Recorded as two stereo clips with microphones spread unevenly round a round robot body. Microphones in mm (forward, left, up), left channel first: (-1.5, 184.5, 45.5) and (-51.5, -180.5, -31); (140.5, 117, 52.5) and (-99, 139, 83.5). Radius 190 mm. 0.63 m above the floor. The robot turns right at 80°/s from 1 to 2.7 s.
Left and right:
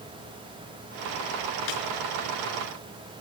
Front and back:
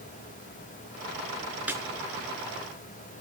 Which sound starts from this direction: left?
A snare drum, at 1.7 s.